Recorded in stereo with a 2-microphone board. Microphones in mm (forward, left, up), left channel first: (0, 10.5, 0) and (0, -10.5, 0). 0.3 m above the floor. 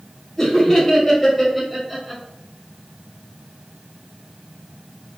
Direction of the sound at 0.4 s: 20° left (ahead or behind).